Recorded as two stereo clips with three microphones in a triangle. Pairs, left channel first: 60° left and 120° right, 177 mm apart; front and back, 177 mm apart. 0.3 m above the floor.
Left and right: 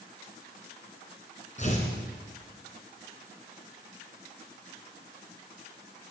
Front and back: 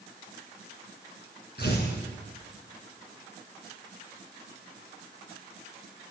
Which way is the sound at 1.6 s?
15° left.